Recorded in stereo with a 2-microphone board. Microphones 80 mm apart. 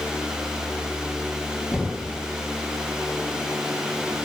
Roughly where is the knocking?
Centre.